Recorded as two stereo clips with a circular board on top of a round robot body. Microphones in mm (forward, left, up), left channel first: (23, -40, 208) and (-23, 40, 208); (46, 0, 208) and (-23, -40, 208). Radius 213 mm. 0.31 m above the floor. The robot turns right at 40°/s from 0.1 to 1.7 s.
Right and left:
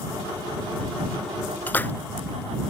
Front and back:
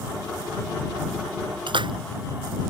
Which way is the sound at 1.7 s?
135° right.